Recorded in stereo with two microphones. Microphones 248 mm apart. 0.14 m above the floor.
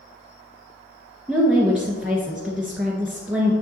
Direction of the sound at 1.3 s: Centre (ahead or behind).